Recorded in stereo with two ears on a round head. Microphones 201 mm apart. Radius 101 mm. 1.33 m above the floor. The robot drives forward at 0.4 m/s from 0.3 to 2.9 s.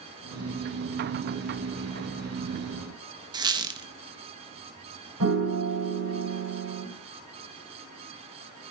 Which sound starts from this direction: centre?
A squeak, at 3.3 s.